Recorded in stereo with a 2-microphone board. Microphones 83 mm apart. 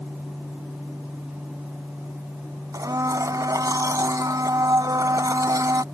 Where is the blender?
45° right (ahead or behind).